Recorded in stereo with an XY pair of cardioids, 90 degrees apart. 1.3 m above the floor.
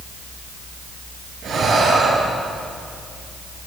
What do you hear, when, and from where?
1.4 s breathing: 65° right, 8 m